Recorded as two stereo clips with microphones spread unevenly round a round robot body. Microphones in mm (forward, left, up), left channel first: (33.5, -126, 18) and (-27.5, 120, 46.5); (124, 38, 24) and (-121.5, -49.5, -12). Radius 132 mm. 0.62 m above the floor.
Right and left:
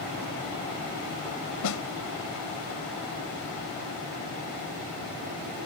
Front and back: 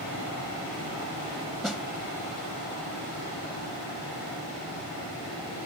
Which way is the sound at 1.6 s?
70° right.